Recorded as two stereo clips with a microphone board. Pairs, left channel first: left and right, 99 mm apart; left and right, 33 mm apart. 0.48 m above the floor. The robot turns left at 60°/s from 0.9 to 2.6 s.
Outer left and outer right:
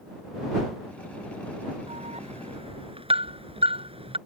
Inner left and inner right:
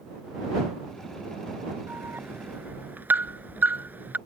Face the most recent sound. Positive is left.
turn(degrees=-60)  # may be behind; listen again after turning